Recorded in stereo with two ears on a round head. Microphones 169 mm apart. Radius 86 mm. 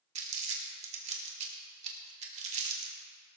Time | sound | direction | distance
0.1 | crumpling | 35° right (ahead or behind) | 1.7 m